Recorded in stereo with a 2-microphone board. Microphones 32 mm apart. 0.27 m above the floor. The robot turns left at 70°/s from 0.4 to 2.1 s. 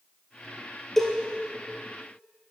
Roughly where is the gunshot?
I don't hear a gunshot.